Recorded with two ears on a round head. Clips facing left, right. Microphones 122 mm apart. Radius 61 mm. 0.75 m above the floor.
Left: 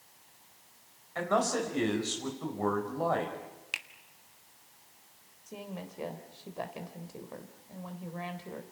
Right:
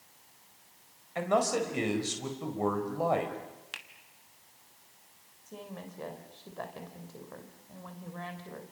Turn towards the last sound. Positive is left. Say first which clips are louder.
# left 2 dB
turn(degrees=15)  # may be behind; listen again after turning